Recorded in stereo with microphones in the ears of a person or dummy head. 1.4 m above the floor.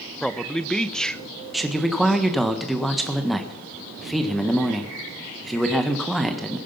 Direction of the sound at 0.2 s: Centre (ahead or behind).